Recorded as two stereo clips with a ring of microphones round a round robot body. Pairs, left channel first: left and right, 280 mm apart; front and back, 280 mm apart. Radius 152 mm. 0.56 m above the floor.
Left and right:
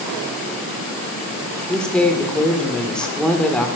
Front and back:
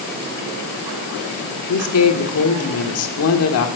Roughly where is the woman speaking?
Ahead.